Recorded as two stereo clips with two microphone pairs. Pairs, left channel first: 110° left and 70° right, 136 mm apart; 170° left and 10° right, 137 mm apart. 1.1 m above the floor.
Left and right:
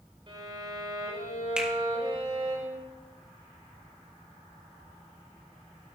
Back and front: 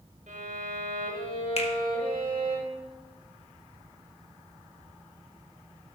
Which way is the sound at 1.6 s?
150° right.